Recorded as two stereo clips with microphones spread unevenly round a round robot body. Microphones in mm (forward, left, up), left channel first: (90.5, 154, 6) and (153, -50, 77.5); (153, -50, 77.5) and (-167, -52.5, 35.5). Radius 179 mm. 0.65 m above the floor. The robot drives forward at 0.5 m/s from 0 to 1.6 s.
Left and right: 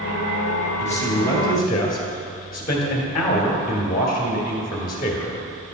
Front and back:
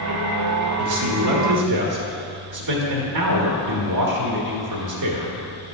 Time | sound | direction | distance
0.8 | a man speaking | 175° left | 0.9 m